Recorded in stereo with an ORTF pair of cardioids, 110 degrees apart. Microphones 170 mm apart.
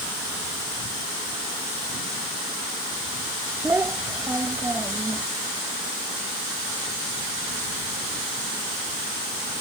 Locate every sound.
3.6 s a child speaking: 15° right